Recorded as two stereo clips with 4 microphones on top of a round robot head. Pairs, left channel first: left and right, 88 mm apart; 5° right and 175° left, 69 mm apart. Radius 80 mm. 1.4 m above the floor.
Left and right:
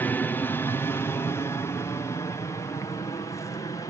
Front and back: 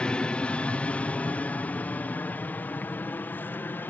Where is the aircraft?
50° left.